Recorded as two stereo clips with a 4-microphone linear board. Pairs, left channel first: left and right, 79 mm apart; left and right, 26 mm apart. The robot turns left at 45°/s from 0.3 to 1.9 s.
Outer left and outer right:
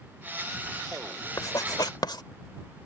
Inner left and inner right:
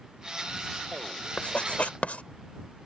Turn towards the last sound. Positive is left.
turn(degrees=70)  # may be behind; listen again after turning